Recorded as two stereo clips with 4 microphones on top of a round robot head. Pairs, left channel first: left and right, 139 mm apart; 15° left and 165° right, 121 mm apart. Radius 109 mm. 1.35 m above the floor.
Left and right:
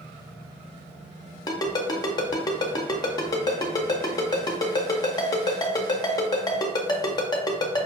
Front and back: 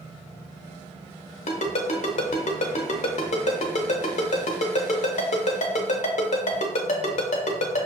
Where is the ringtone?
30° left, 0.6 m.